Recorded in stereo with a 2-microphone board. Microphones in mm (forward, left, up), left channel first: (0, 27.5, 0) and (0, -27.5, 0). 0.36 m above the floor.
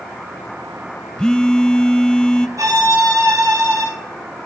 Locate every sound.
1.2 s a phone buzzing: 15° left (ahead or behind), 0.7 m
2.6 s a violin: 80° right, 9.5 m